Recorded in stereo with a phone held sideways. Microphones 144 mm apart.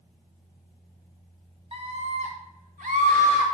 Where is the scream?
45° right (ahead or behind), 1.2 m; by 3.5 s 65° right (ahead or behind), 1.9 m.